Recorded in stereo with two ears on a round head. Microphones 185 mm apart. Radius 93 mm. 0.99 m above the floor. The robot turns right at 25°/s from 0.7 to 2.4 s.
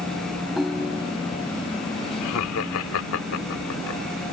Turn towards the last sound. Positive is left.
turn(degrees=70)  # may be behind; listen again after turning